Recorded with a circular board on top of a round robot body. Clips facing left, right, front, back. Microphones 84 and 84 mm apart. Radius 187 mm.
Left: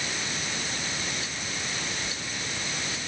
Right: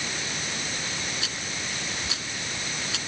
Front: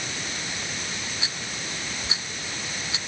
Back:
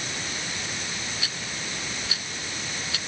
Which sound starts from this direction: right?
A rattle, at 1.2 s.